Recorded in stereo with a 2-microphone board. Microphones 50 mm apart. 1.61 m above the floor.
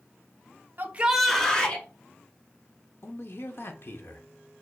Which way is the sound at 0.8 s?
45° right (ahead or behind).